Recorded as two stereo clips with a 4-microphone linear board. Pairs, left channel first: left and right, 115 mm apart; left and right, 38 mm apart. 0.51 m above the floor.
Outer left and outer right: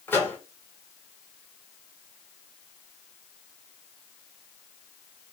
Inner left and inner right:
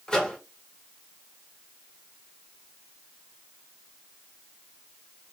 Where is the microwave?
15° left (ahead or behind), 1.0 m.